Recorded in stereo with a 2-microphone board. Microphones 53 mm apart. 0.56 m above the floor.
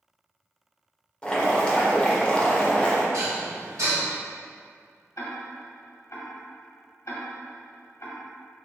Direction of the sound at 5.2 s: 70° left (ahead or behind).